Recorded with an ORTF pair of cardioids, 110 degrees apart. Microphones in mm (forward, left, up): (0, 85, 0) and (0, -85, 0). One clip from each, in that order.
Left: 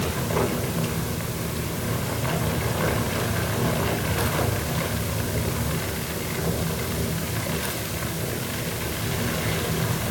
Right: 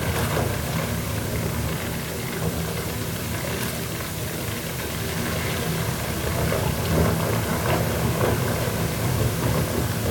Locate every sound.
Only background noise.